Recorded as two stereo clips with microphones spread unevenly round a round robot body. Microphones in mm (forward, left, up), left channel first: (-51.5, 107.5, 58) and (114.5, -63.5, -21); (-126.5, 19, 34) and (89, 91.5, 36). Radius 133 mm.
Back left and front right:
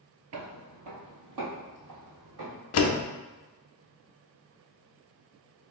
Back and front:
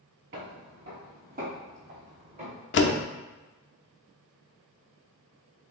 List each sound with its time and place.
0.3 s footsteps: 20° right, 0.8 m; by 2.6 s 45° right, 1.9 m
2.7 s a door slam: 170° left, 0.5 m